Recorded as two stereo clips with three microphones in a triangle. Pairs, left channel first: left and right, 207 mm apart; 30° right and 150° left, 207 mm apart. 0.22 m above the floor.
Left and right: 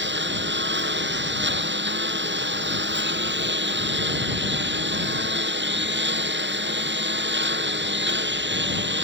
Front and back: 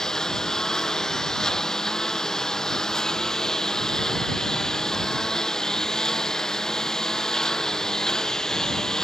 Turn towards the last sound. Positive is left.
turn(degrees=-120)